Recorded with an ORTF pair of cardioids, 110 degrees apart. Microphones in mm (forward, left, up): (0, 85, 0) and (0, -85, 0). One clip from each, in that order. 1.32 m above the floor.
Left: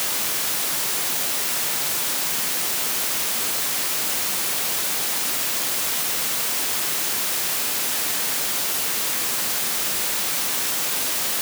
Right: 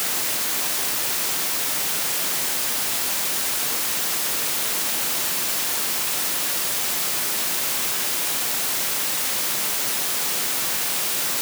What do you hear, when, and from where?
Only background noise.